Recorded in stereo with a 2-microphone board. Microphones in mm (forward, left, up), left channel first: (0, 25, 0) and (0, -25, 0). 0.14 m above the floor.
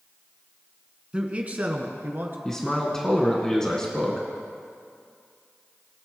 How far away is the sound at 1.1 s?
About 1.1 m.